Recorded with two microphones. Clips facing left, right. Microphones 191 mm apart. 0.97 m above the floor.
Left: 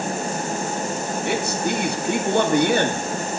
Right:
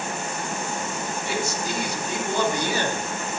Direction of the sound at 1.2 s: 60° left (ahead or behind).